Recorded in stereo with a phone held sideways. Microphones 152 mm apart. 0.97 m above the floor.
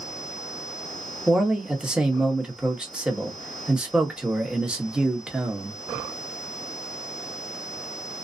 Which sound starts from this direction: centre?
A man speaking, at 1.3 s.